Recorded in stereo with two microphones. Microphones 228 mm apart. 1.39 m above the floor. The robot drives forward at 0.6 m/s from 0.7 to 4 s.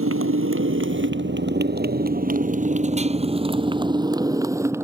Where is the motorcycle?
70° right (ahead or behind); by 4.8 s 10° right (ahead or behind).